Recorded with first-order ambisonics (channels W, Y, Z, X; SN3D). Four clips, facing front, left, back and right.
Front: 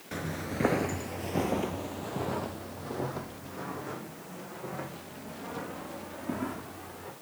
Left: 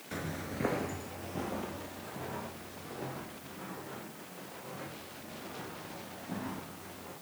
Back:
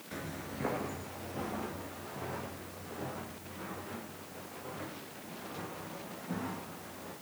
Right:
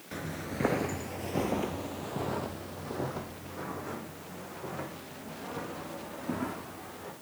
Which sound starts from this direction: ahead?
Footsteps, at 0.1 s.